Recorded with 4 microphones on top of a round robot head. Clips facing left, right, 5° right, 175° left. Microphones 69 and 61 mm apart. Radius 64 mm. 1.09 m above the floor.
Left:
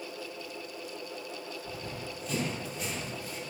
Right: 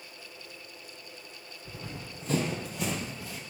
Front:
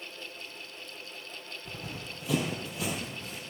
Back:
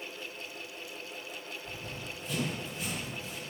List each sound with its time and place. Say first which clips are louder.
1.6 s running footsteps: left 3 dB, even; 10° right, 2 m; by 3.4 s 75° right, 1.6 m